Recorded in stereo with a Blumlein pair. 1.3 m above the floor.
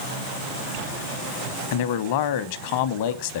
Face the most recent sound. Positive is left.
turn(degrees=50)